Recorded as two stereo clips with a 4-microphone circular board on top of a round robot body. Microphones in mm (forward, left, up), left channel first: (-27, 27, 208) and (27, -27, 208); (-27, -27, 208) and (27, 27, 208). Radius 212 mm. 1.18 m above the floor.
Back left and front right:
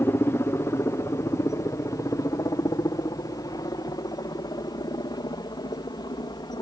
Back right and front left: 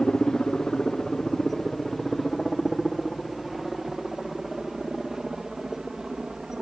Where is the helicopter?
150° left; by 6.6 s 125° left.